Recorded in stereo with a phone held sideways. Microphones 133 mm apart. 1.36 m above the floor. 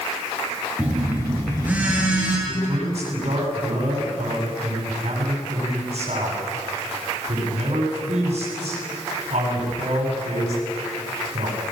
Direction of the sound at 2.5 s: 55° right (ahead or behind).